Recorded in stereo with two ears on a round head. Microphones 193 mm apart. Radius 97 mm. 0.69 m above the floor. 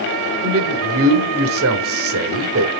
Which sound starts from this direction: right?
A man speaking, at 0.4 s.